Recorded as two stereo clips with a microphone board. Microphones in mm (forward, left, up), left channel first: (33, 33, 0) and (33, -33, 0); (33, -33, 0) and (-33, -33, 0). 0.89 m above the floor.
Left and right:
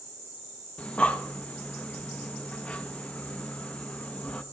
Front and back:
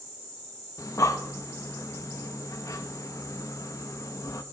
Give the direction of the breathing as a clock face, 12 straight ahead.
11 o'clock.